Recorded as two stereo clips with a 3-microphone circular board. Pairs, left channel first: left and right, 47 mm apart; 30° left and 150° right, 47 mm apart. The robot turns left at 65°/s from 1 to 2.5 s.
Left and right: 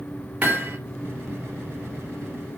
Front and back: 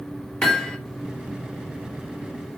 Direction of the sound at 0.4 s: 40° right.